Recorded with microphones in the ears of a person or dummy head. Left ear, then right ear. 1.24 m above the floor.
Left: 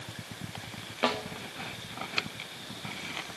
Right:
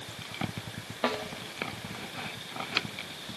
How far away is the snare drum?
About 0.9 m.